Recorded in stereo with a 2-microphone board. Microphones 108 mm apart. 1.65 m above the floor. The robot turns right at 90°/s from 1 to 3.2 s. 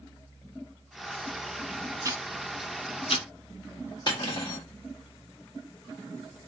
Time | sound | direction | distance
2.0 | ticking | 30° right (ahead or behind) | 0.7 m
4.1 | cutlery clinking | 45° left (ahead or behind) | 1.6 m